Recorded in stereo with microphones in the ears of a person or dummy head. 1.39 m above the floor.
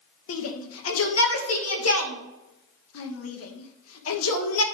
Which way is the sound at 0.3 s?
80° left.